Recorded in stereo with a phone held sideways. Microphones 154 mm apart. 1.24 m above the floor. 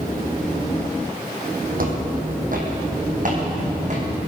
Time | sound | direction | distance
1.8 | footsteps | 65° right (ahead or behind) | 3 m